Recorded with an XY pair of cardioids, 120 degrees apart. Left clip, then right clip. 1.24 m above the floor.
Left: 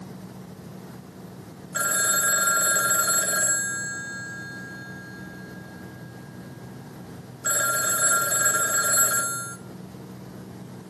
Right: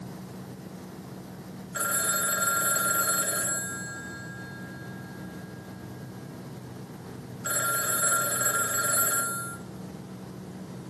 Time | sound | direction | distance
1.7 | a phone ringing | 25° left | 0.8 m